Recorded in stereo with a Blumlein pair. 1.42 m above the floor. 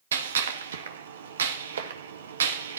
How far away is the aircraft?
I don't hear an aircraft.